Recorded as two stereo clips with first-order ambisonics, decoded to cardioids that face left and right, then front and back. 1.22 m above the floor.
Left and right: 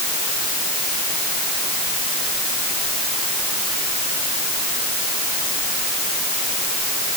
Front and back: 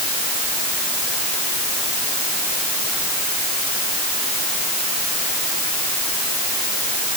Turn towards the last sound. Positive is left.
No sound to turn to.